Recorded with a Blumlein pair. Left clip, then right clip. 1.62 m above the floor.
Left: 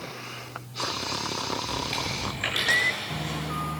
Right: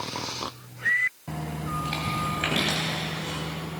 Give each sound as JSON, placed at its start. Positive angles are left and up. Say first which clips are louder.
{"t": 1.6, "sound": "chewing", "louder": "left 1 dB", "azimuth_deg": -10, "distance_m": 9.0}